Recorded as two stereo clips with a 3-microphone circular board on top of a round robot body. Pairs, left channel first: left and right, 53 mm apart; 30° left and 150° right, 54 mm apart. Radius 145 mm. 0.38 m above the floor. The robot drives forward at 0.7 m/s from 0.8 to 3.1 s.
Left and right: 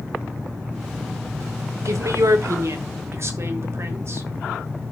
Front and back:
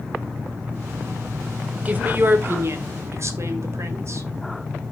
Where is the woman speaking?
90° right, 1.6 m; by 4.3 s 120° right, 1.8 m.